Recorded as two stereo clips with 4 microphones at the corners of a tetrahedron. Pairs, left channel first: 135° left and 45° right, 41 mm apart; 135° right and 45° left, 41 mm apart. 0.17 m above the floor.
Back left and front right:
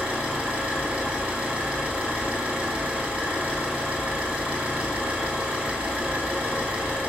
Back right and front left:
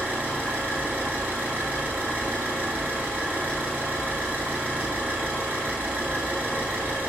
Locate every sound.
0.0 s an engine running: 10° left, 1.4 m